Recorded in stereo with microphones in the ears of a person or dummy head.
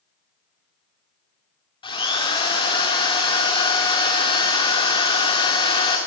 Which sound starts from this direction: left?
A drill, at 1.8 s.